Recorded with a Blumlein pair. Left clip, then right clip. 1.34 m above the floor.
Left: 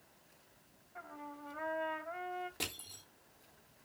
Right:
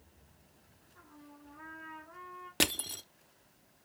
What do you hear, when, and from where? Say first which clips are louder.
0.9 s a trumpet: left 9 dB; 55° left, 1.4 m
2.6 s crushing: right 11 dB; 55° right, 0.6 m